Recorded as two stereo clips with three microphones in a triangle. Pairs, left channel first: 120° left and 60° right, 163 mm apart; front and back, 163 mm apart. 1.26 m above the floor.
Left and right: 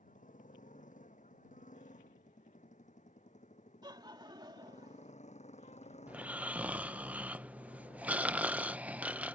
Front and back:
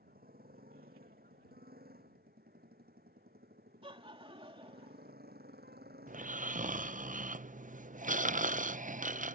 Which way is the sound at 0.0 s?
160° left.